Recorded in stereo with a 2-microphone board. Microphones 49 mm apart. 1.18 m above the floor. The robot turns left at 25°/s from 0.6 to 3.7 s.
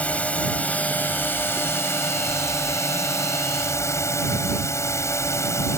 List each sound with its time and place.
0.0 s a drone: 150° left; by 5.8 s 75° left